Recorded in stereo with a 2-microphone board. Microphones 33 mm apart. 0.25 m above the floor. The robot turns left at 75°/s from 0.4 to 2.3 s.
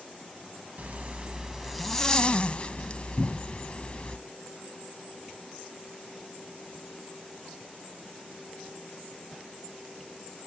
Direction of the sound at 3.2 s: 50° left (ahead or behind).